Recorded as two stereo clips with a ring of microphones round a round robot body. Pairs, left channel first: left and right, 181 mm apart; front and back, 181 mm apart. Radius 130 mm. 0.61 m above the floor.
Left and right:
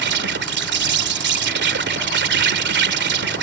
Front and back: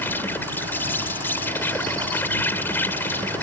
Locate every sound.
0.0 s an insect: 80° right